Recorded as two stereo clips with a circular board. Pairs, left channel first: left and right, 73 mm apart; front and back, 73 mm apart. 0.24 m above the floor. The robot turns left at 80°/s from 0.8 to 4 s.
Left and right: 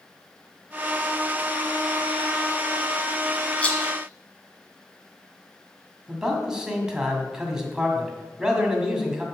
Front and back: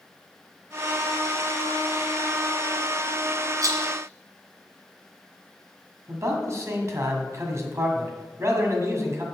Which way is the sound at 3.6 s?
160° left.